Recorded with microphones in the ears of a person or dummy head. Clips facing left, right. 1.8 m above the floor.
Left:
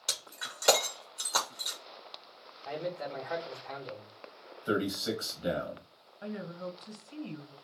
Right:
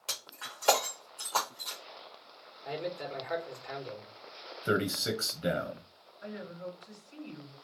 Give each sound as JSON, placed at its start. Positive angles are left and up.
{"t": 0.1, "sound": "breaking glass", "side_deg": 30, "distance_m": 1.3}
{"t": 2.6, "sound": "a man speaking", "side_deg": -15, "distance_m": 1.5}
{"t": 4.7, "sound": "a man speaking", "side_deg": -40, "distance_m": 0.8}
{"t": 6.2, "sound": "a woman speaking", "side_deg": 70, "distance_m": 1.7}